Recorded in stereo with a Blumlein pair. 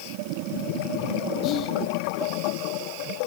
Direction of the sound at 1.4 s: 35° left.